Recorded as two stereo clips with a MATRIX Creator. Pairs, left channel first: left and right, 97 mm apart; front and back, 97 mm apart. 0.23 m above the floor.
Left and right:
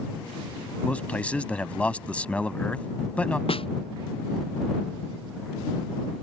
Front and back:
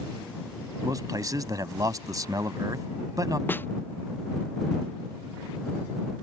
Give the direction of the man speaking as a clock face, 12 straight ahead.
7 o'clock.